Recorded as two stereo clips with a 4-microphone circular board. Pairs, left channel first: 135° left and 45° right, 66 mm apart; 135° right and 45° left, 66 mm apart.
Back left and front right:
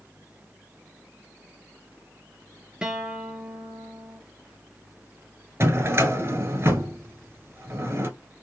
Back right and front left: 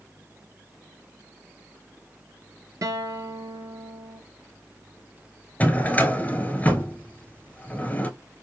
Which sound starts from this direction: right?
A drawer, at 5.6 s.